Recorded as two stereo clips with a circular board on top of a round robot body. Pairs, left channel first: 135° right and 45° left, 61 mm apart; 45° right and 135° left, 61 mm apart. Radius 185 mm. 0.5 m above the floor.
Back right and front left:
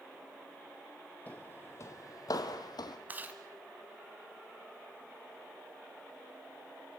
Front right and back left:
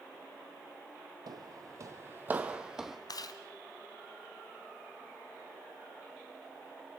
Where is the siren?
I don't hear a siren.